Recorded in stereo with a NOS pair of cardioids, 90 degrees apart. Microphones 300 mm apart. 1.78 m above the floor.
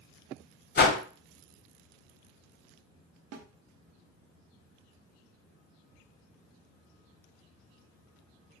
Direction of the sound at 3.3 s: 55° right.